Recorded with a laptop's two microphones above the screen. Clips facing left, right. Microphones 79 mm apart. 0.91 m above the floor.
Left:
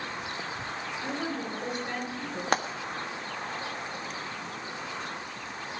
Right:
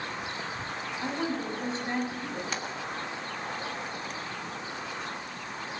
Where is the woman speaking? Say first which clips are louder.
Right 3 dB; 30° right (ahead or behind), 7.5 m.